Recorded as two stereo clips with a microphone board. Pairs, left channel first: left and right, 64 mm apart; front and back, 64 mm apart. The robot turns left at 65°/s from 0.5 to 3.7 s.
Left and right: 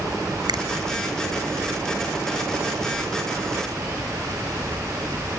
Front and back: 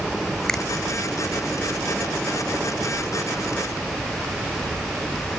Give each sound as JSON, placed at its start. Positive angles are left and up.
{"t": 0.5, "sound": "a finger snap", "azimuth_deg": -80}